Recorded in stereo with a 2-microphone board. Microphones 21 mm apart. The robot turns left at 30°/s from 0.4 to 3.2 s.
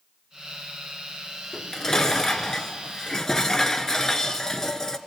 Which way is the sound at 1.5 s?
25° left (ahead or behind).